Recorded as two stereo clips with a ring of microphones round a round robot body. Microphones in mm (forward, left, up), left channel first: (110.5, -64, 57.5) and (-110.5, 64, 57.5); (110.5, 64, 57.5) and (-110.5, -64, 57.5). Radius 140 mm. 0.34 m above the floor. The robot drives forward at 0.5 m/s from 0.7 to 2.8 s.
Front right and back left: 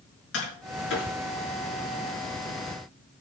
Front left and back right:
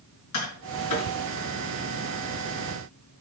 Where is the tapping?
15° left, 6.5 m.